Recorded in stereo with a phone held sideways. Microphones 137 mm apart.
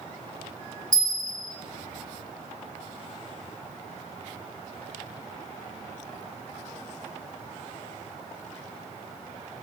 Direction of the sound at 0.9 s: 70° right (ahead or behind).